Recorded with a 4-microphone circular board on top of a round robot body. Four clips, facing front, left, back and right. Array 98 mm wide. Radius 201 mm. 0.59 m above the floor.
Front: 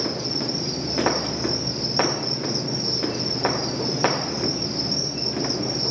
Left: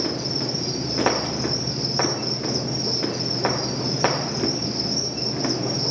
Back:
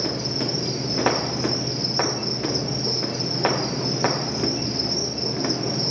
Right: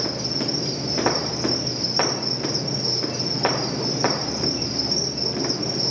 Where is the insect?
155° right, 2.5 m.